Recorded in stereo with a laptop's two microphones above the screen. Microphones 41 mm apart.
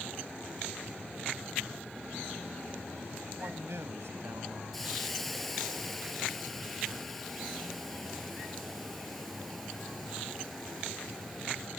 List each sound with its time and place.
3.4 s a man speaking: 65° right (ahead or behind); by 4.6 s 85° right
4.7 s a hiss: 5° left (ahead or behind)